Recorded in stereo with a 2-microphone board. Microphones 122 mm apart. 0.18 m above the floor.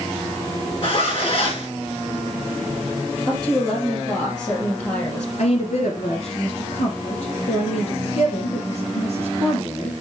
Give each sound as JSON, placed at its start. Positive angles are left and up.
{"t": 0.8, "sound": "a zipper", "side_deg": 45, "distance_m": 4.5}
{"t": 3.3, "sound": "a woman speaking", "side_deg": 25, "distance_m": 3.0}
{"t": 5.4, "sound": "a woman speaking", "side_deg": 70, "distance_m": 2.5}